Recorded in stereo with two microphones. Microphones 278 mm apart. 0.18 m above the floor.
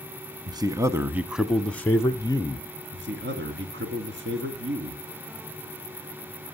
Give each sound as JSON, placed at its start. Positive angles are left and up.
{"t": 0.5, "sound": "a man speaking", "side_deg": -15, "distance_m": 1.2}
{"t": 2.9, "sound": "a man speaking", "side_deg": -40, "distance_m": 2.0}